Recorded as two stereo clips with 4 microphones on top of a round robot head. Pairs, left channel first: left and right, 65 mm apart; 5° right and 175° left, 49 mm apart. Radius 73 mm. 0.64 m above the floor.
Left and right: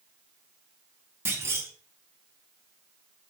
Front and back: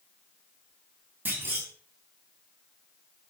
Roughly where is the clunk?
Behind right.